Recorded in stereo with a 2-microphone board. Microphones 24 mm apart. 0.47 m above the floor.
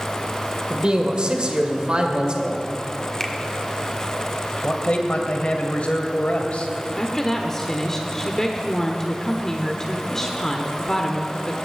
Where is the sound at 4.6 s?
60° left (ahead or behind), 2.0 m.